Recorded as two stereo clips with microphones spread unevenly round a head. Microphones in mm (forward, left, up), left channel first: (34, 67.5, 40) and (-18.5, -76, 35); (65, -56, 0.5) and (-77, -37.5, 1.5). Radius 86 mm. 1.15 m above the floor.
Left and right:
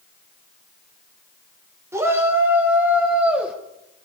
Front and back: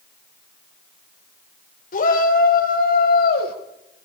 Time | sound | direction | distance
1.9 | a shout | 35° right | 4 m